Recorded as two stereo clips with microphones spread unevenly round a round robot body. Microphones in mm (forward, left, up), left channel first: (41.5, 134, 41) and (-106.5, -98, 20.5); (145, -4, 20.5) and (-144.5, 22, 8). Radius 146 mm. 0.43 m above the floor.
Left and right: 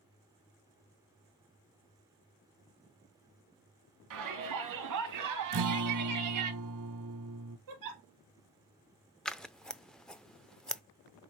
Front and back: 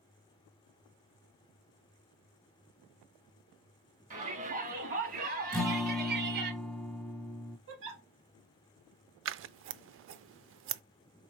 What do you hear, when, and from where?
4.1 s a shout: 120° right, 3.5 m; by 6.5 s 135° right, 2 m
5.5 s a guitar: 95° right, 0.8 m
7.7 s a giggle: 135° right, 2.5 m
9.2 s scissors: 150° left, 0.5 m